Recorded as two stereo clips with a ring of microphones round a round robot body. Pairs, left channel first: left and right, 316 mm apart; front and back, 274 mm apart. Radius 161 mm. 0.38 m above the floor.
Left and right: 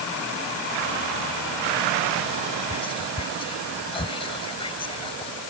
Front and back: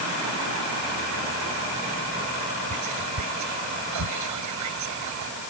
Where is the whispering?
165° left.